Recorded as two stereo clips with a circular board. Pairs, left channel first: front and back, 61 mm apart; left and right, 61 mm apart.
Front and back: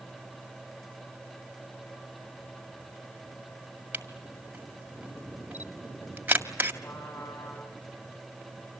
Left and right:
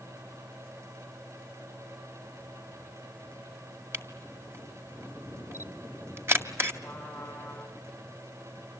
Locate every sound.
3.9 s a camera shutter: 130° right, 1.9 m
6.8 s a trumpet: 15° left, 8 m